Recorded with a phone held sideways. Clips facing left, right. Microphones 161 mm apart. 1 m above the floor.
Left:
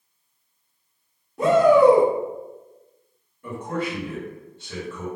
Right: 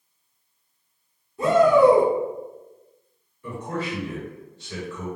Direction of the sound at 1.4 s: 70° left (ahead or behind).